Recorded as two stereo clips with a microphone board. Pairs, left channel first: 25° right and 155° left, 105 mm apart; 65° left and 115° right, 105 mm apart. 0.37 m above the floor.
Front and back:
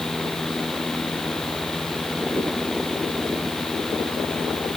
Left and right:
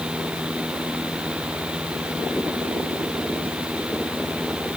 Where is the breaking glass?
I don't hear breaking glass.